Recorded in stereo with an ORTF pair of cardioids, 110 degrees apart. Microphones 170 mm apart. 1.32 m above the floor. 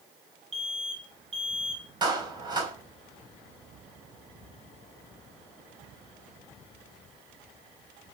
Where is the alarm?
35° right, 6 m.